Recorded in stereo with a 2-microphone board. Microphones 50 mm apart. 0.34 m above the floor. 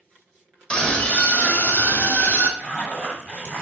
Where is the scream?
15° left (ahead or behind), 1.0 m; by 2.5 s 50° left (ahead or behind), 1.9 m.